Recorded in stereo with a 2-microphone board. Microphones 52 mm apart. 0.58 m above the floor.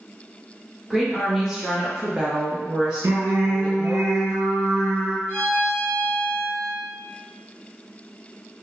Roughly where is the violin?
Right.